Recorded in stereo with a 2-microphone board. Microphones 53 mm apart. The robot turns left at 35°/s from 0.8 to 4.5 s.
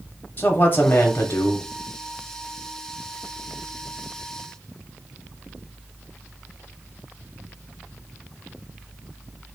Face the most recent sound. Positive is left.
turn(degrees=15)